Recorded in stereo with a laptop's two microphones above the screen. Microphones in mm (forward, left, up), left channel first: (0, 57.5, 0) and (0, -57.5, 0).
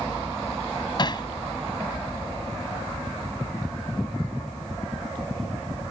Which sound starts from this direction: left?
Hammering, at 1.0 s.